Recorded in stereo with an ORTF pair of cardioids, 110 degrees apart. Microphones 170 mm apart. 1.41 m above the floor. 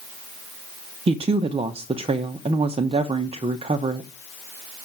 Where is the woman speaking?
35° right, 0.7 m.